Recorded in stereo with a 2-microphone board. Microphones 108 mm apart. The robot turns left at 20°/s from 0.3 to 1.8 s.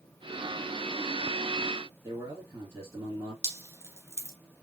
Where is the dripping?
25° right (ahead or behind), 1.4 m.